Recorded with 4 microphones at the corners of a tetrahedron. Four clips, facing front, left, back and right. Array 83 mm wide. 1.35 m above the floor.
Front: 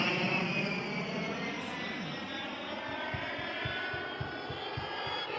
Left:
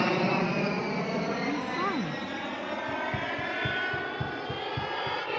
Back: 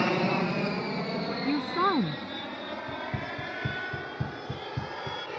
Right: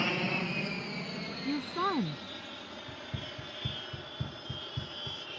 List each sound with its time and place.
0.0 s an aircraft: 135° left; by 5.4 s 95° left
1.4 s a woman speaking: 175° left
2.9 s running footsteps: 155° left